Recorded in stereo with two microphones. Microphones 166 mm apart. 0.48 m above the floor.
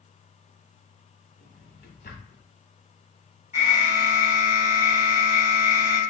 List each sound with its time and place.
1.4 s a drawer: 85° left, 1.2 m
3.5 s an alarm: 15° right (ahead or behind), 2 m